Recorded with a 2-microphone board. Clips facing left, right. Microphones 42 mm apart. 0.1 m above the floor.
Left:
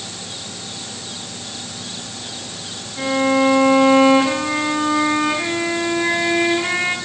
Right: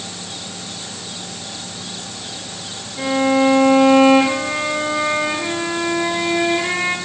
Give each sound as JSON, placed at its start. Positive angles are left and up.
{"t": 3.0, "sound": "a violin", "side_deg": 35, "distance_m": 4.0}